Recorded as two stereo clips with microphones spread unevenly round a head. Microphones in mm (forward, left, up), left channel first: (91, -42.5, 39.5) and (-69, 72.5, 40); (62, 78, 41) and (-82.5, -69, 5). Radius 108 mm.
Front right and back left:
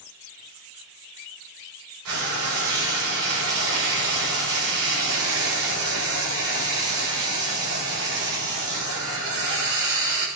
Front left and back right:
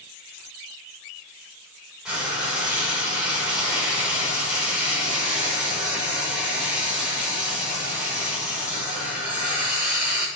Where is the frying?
140° left, 7 m.